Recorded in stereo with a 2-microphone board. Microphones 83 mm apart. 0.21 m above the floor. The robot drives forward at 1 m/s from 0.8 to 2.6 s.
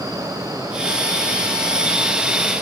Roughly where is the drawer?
I don't hear a drawer.